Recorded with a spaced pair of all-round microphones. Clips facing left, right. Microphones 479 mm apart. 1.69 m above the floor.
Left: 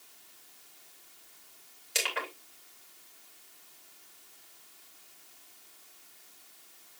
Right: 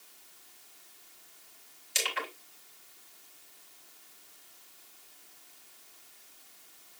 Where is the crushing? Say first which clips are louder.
Left 1 dB; 75° left (ahead or behind), 4.5 m.